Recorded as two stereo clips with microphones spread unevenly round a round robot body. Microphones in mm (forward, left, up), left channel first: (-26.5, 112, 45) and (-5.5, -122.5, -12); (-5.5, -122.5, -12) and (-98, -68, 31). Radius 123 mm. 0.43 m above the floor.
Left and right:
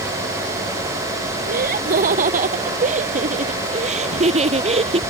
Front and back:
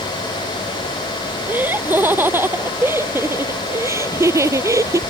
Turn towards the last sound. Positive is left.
turn(degrees=-150)